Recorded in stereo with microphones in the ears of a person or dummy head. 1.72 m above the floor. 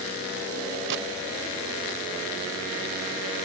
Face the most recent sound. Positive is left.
turn(degrees=-70)  # may be behind; listen again after turning